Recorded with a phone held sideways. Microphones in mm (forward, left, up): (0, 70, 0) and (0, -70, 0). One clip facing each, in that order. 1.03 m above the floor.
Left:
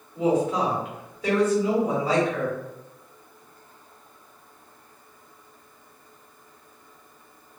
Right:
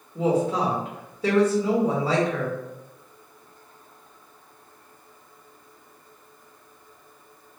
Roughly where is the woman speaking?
Right.